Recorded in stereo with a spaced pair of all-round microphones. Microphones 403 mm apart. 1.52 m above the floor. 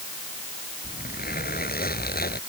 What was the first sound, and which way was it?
A zipper, 20° left (ahead or behind).